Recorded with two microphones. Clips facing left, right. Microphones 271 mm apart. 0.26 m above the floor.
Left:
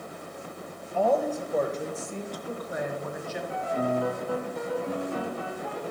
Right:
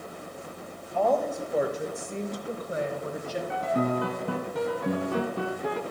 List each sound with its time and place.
0.9 s a woman speaking: 10° left (ahead or behind), 1.1 m; by 3.4 s 40° right (ahead or behind), 1.5 m
3.5 s a piano: 80° right, 0.8 m